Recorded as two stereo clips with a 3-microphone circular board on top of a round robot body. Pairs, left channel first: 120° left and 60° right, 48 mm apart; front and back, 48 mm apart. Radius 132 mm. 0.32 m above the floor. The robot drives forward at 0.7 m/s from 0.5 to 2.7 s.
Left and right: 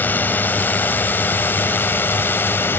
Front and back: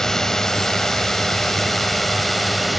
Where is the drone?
80° left; by 2.8 s 90° left.